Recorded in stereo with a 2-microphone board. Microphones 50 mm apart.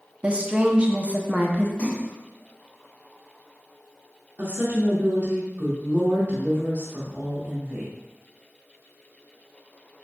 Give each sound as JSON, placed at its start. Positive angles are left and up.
{"t": 0.2, "sound": "a woman speaking", "side_deg": -25, "distance_m": 0.5}
{"t": 1.8, "sound": "a splash", "side_deg": 25, "distance_m": 1.7}
{"t": 4.4, "sound": "a woman speaking", "side_deg": -45, "distance_m": 1.0}